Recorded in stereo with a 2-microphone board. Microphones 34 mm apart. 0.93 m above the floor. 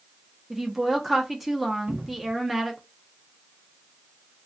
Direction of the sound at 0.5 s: 10° right (ahead or behind).